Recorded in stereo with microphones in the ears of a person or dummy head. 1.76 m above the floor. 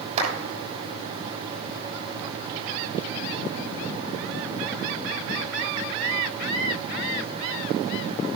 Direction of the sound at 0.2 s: 30° right (ahead or behind).